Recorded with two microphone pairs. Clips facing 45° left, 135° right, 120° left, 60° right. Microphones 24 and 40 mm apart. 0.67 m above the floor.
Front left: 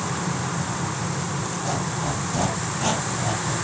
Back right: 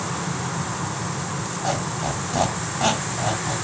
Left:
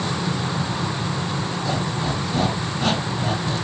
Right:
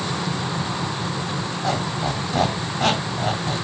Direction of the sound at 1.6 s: 90° right.